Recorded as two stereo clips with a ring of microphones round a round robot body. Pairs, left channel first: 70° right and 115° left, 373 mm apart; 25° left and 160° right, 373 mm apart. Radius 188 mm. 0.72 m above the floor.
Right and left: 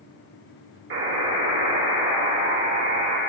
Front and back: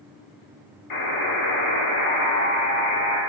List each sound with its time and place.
0.9 s a buzzer: 60° left, 2 m